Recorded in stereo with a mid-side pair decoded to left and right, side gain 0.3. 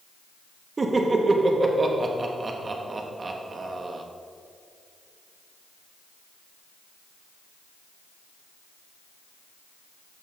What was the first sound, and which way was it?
Laughter, 45° right.